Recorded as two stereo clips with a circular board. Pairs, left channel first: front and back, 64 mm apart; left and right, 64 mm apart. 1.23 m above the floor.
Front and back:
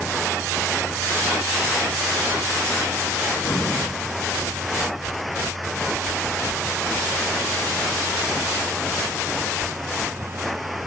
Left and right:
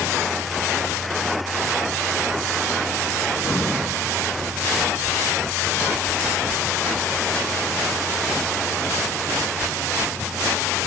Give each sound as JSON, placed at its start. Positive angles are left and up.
{"t": 3.4, "sound": "breathing", "azimuth_deg": 45, "distance_m": 1.3}